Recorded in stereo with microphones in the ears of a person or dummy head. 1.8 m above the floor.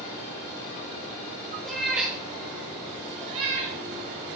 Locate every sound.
1.6 s a cat meowing: centre (ahead or behind), 1.8 m; by 3.8 s 40° right (ahead or behind), 2.0 m